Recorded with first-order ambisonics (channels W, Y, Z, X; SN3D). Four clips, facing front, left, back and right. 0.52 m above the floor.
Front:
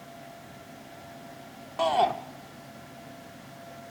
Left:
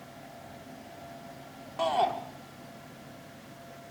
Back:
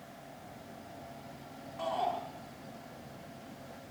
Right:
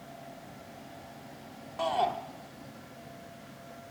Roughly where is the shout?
Ahead.